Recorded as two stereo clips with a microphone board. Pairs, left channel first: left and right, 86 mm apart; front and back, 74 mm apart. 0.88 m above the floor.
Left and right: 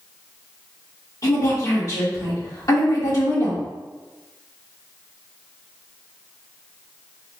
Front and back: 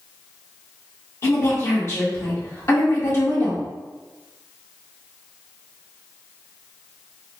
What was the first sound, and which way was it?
A woman speaking, 45° left.